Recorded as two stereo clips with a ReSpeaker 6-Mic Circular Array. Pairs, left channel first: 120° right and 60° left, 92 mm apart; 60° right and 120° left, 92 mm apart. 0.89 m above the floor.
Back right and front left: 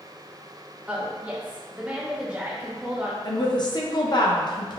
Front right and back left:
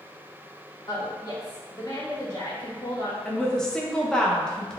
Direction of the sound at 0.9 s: 15° right.